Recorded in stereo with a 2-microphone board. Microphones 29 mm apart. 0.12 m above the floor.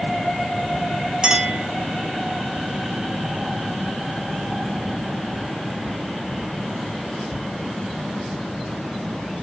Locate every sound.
1.2 s a clink: 25° right (ahead or behind), 1.9 m